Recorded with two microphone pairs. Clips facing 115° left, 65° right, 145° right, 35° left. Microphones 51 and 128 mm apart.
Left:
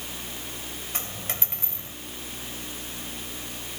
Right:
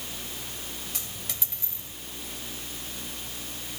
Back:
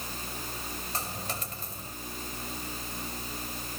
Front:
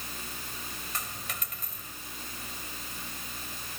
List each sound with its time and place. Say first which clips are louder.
0.9 s a dropped coin: left 5 dB, back 4 dB; 155° left